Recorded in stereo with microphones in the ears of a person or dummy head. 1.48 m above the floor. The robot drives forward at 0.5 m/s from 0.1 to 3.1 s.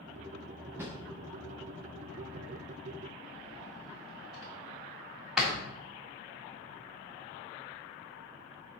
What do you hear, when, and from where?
0.8 s a drawer: 10° right (ahead or behind), 0.6 m; by 5.5 s 5° right (ahead or behind), 1.4 m